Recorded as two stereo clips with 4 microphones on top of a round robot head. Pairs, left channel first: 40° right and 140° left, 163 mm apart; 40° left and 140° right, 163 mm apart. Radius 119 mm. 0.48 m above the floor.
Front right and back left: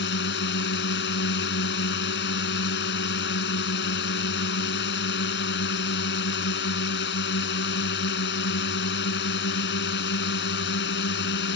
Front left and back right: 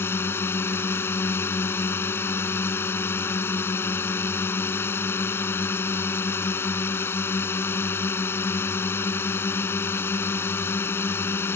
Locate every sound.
0.0 s a drone: 35° right